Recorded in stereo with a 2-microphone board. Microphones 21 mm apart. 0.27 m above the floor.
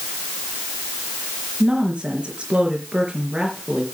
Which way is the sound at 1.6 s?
70° right (ahead or behind).